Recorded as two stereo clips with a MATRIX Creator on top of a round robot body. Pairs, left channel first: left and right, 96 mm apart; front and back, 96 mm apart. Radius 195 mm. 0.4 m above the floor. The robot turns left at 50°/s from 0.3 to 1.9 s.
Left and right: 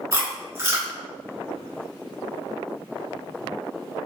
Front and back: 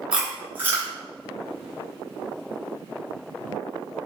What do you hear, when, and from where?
0.1 s chewing: 110° right, 1.5 m; by 0.9 s 140° right, 1.5 m